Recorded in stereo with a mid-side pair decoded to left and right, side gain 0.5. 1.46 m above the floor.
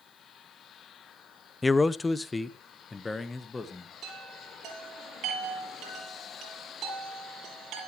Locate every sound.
1.6 s a man speaking: 15° left, 0.5 m; by 3.9 s 20° left, 2.0 m
4.0 s a chime: 65° right, 8 m